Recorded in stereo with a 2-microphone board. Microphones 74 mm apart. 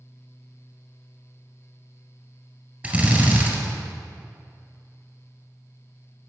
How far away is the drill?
About 2 m.